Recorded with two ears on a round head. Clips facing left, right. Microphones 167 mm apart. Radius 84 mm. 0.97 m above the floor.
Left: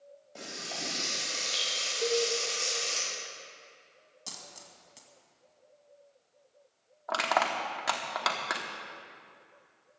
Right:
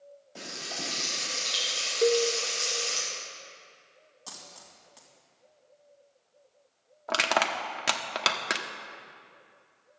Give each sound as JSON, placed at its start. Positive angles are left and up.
{"t": 0.3, "sound": "frying", "side_deg": -5, "distance_m": 5.5}
{"t": 2.0, "sound": "a cowbell", "side_deg": -50, "distance_m": 0.9}
{"t": 4.3, "sound": "a dropped coin", "side_deg": 25, "distance_m": 2.0}
{"t": 7.1, "sound": "crushing", "side_deg": -35, "distance_m": 1.0}